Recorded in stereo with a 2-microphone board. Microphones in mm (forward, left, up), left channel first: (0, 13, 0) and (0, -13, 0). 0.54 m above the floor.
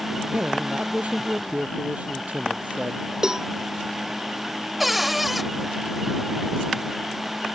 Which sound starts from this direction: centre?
A cupboard door, at 4.8 s.